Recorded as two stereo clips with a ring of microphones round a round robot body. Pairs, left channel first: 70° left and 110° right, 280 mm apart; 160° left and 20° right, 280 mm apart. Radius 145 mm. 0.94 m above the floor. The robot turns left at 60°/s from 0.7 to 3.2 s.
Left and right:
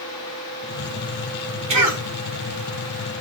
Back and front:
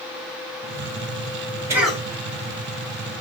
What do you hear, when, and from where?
1.7 s a cough: 100° right, 1.3 m; by 2.0 s 120° right, 1.3 m